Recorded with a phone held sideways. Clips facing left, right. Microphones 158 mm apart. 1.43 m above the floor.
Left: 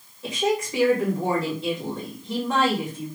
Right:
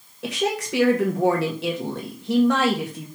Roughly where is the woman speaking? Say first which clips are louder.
Left 1 dB; right.